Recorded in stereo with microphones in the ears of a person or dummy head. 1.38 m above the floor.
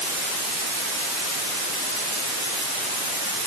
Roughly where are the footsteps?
I don't hear footsteps.